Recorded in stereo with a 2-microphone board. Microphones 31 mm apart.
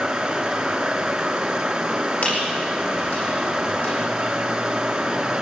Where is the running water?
15° right (ahead or behind), 2.5 m.